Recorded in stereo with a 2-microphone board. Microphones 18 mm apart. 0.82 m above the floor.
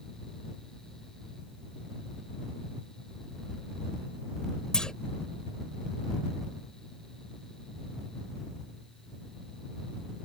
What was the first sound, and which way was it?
A clunk, 45° left (ahead or behind).